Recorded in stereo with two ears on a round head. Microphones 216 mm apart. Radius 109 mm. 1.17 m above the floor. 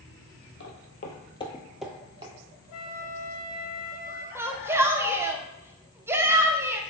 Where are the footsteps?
50° left (ahead or behind), 1.7 m; by 2.3 s 25° right (ahead or behind), 1.4 m.